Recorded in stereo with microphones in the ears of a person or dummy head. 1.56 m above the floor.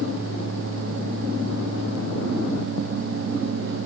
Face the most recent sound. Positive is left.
No sound to turn to.